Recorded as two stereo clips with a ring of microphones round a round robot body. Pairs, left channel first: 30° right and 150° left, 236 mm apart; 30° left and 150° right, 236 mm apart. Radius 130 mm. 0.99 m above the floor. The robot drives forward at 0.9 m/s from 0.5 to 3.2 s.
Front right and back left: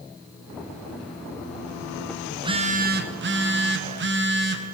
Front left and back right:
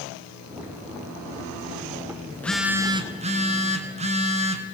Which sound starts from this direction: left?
A phone buzzing, at 2.3 s.